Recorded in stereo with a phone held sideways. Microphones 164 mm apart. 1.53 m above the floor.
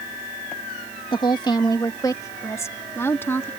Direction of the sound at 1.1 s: 30° left (ahead or behind).